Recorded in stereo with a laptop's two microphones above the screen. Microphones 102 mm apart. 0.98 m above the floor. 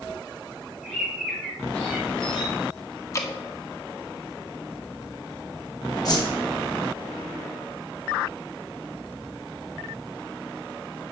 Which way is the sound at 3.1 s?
35° left (ahead or behind).